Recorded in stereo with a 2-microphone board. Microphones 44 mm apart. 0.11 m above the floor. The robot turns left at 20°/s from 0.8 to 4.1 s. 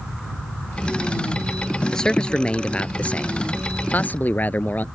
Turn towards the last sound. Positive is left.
turn(degrees=115)